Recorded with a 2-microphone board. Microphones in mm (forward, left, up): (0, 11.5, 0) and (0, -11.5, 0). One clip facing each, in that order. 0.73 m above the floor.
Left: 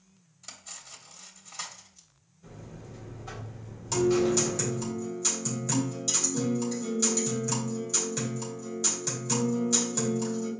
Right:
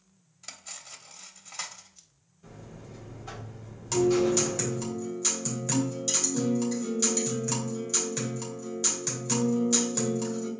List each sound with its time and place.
0.4 s cutlery clinking: 15° right (ahead or behind), 0.8 m
2.4 s a buzzer: 20° right (ahead or behind), 2.5 m
3.9 s a guitar: 25° right (ahead or behind), 2.5 m